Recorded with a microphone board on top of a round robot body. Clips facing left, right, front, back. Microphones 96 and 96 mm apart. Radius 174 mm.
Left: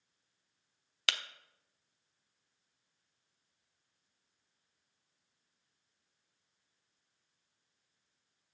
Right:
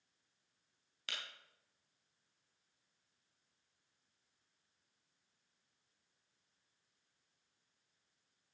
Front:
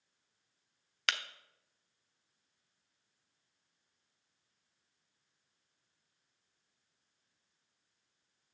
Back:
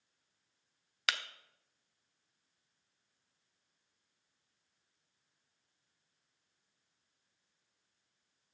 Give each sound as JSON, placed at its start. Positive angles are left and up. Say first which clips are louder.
{"t": 1.1, "sound": "breaking glass", "louder": "left 10 dB, even", "azimuth_deg": 90, "distance_m": 0.9}